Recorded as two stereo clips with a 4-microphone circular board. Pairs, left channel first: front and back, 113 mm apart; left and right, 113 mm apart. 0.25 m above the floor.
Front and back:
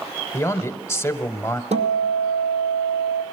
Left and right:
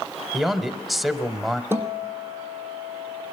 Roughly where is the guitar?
Behind.